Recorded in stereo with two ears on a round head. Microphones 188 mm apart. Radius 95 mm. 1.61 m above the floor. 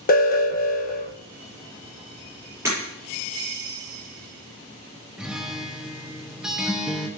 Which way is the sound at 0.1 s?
45° left (ahead or behind).